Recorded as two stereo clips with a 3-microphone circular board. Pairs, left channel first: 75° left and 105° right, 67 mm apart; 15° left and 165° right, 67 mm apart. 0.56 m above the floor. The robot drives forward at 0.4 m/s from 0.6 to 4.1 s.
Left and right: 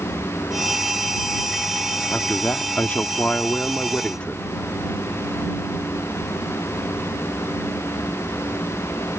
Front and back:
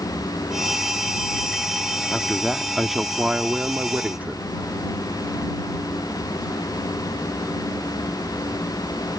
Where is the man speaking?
80° left; by 4.4 s 140° left.